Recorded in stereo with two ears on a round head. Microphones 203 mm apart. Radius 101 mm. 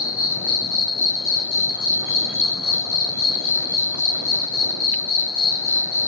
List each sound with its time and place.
0.0 s an insect: 35° left (ahead or behind), 2 m